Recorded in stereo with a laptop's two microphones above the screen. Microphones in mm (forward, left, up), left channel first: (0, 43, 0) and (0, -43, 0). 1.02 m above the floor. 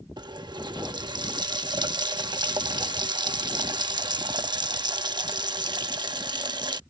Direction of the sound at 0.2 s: 55° right (ahead or behind).